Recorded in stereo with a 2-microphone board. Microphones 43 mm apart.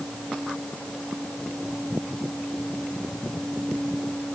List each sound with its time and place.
Only background noise.